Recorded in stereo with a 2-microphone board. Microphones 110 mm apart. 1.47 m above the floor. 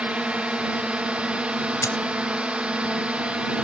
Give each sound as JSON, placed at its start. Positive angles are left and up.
{"t": 0.0, "sound": "a drone", "side_deg": -10}
{"t": 1.8, "sound": "a dropped coin", "side_deg": 30}